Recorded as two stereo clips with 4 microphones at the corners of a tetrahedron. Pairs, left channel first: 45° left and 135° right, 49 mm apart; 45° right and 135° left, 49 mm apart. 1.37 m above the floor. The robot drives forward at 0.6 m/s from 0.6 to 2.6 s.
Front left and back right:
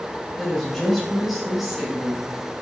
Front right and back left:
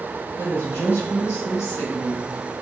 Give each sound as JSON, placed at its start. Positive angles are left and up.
{"t": 0.4, "sound": "a woman speaking", "azimuth_deg": -35, "distance_m": 2.0}